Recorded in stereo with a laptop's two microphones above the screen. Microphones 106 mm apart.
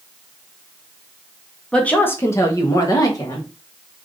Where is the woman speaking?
10° left (ahead or behind), 0.8 m; by 3.5 s 35° left (ahead or behind), 1.6 m.